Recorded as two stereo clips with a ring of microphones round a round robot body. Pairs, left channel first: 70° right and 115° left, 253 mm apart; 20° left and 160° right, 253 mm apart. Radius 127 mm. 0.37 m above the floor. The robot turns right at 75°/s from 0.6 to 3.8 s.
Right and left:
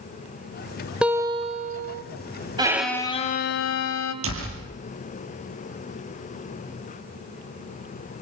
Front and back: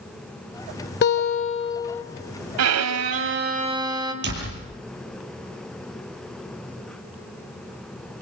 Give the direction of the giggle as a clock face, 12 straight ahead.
I don't hear a giggle.